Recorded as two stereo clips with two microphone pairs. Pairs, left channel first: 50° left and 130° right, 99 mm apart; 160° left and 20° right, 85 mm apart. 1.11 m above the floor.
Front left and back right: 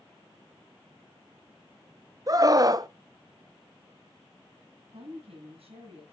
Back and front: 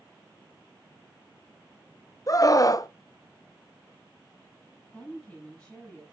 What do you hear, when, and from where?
2.3 s a scream: 170° right, 0.6 m
4.9 s a woman speaking: 120° right, 9 m